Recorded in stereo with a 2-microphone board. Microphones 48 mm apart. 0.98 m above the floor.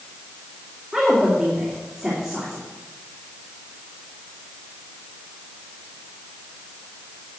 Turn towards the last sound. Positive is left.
turn(degrees=-15)  # may be behind; listen again after turning